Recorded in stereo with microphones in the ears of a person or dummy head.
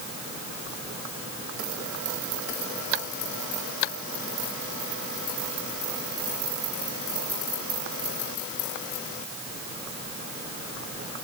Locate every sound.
Only background noise.